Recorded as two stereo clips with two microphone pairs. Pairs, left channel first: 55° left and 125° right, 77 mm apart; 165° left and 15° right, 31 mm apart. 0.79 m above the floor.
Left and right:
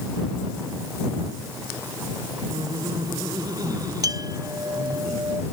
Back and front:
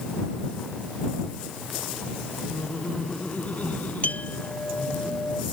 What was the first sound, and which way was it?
Laughter, 155° right.